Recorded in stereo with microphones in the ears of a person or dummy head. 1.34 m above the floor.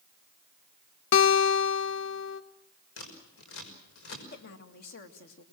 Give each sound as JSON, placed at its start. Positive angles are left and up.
{"t": 1.1, "sound": "a guitar", "side_deg": 75, "distance_m": 1.0}
{"t": 3.0, "sound": "scissors", "side_deg": 90, "distance_m": 5.5}
{"t": 4.3, "sound": "a woman speaking", "side_deg": 60, "distance_m": 2.0}